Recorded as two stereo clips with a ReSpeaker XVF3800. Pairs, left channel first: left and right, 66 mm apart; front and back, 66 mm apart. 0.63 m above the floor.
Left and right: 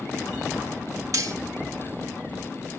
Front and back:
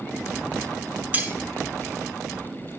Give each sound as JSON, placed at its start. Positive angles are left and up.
{"t": 1.1, "sound": "cutlery clinking", "azimuth_deg": -115, "distance_m": 1.0}